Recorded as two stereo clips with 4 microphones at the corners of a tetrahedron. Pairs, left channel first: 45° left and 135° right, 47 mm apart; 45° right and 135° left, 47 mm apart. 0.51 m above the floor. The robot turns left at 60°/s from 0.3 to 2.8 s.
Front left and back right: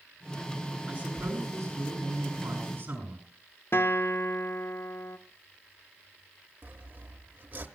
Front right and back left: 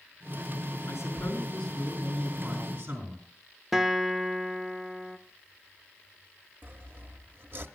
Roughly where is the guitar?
Ahead left.